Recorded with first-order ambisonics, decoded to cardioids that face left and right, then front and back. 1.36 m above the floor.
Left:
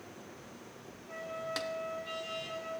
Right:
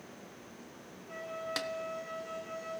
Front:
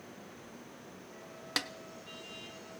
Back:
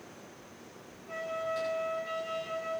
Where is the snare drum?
10° right, 0.8 m.